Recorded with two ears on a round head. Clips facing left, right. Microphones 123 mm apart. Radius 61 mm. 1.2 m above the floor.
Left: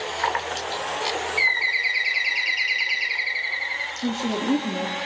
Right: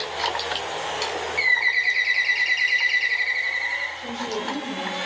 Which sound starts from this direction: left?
A woman speaking, at 4.0 s.